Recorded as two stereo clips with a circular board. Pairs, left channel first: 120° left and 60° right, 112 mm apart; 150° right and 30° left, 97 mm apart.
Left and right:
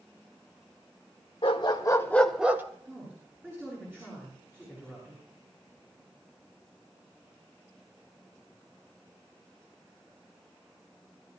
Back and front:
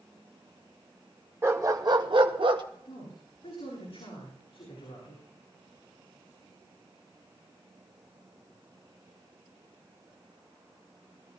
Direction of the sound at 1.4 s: 90° left.